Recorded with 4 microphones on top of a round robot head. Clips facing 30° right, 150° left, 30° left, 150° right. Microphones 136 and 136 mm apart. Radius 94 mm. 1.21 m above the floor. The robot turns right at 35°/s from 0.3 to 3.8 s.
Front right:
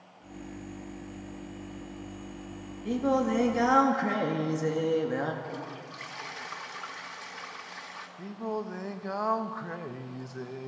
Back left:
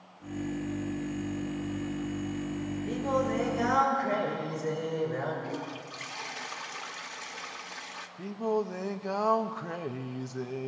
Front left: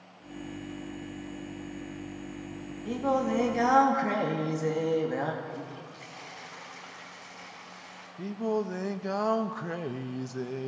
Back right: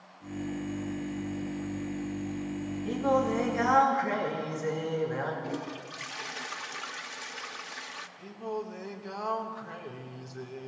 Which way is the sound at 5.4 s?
140° right.